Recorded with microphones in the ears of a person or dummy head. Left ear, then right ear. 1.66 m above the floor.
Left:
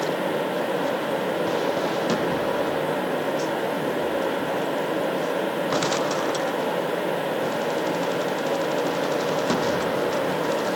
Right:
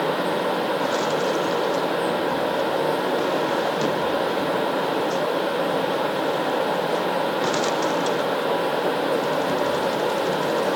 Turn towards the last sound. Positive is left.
No sound to turn to.